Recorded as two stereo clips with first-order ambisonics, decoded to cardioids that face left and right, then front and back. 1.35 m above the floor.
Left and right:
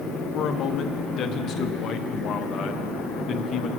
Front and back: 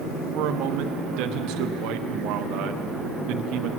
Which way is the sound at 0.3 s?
145° left.